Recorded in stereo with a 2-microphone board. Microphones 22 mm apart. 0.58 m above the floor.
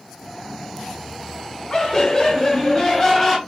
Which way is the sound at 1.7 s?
20° left (ahead or behind).